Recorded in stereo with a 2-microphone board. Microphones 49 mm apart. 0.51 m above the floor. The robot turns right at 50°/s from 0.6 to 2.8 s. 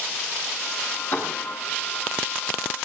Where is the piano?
40° left (ahead or behind), 8.5 m; by 1.3 s 30° left (ahead or behind), 8.5 m.